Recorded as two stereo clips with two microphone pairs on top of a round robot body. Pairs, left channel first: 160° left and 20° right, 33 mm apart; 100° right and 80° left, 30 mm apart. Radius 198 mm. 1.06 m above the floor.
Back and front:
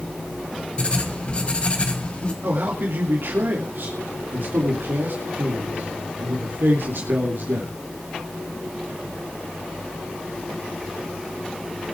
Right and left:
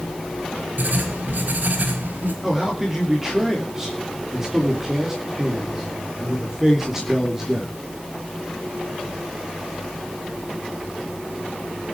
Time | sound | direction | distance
0.8 | writing | 100° left | 1.3 m
2.4 | a man speaking | 5° left | 3 m